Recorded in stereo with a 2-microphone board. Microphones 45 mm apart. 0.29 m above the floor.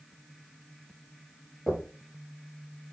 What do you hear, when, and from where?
1.7 s knocking: 10° right (ahead or behind), 4 m